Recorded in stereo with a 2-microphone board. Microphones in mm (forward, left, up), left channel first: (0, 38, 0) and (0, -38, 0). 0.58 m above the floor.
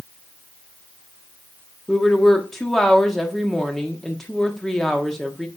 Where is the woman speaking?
5° left (ahead or behind), 1.3 m.